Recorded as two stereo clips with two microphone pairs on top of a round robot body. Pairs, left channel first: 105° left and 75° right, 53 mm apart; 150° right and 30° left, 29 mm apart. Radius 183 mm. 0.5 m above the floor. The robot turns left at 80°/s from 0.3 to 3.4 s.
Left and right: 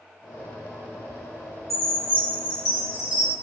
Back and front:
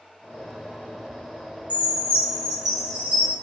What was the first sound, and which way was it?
A chime, 165° right.